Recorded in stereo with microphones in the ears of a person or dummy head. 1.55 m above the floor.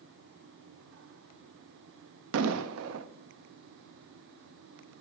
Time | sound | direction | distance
2.3 | an explosion | 80° right | 0.5 m